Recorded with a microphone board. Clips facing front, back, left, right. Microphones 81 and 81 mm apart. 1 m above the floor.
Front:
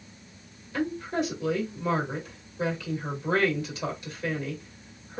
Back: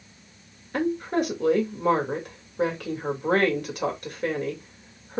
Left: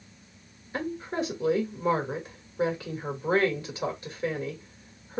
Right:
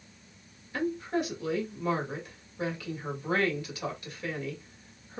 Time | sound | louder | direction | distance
0.7 | a woman speaking | back 4 dB, right 1 dB | 150° left | 1.8 m